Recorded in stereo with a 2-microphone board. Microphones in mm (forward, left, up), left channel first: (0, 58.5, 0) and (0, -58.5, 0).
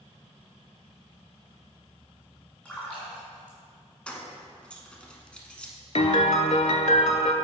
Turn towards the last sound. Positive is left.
turn(degrees=70)  # may be behind; listen again after turning